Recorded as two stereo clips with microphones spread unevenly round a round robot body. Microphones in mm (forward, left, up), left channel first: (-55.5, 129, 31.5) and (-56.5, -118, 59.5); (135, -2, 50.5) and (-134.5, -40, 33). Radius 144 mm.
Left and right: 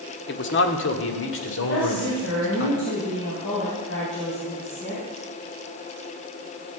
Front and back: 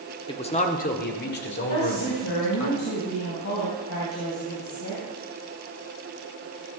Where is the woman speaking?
40° left, 3.5 m.